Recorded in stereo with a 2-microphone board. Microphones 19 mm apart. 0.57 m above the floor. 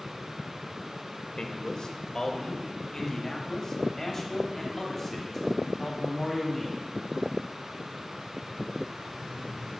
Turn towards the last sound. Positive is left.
turn(degrees=10)  # may be behind; listen again after turning